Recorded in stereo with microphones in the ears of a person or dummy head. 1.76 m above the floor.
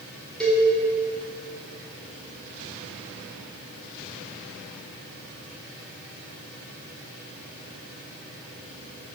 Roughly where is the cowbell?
Centre.